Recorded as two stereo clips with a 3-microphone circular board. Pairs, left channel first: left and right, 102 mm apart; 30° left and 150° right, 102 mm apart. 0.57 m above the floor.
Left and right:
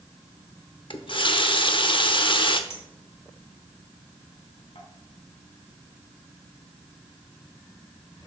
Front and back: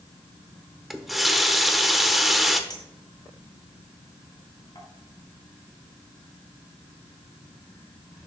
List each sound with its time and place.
0.9 s a running tap: 120° left, 0.9 m
2.7 s a clink: 80° left, 2.5 m